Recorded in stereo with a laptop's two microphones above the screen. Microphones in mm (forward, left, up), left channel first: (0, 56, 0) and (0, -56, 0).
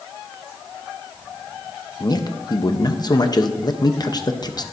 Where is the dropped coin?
I don't hear a dropped coin.